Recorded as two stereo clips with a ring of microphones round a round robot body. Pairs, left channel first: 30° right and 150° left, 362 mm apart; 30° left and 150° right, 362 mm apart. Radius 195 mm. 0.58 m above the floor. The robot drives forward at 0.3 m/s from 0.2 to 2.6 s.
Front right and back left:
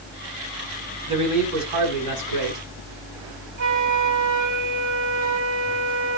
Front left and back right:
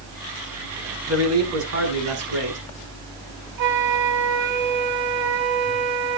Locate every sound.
1.1 s a man speaking: 160° left, 8 m
3.6 s a flute: 155° right, 1.9 m